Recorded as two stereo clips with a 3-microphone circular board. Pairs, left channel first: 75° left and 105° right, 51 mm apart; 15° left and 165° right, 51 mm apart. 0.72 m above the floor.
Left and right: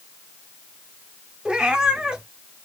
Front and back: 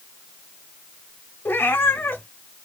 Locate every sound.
1.4 s a cat meowing: 30° right, 0.6 m